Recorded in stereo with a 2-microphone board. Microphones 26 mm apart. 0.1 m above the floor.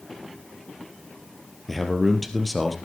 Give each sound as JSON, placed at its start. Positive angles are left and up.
{"t": 1.7, "sound": "a man speaking", "side_deg": 5, "distance_m": 2.0}